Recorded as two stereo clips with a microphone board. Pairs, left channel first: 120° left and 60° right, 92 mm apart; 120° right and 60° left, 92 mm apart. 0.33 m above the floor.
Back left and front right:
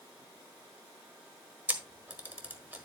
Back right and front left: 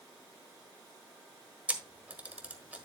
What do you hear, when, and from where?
1.7 s a camera shutter: straight ahead, 1.4 m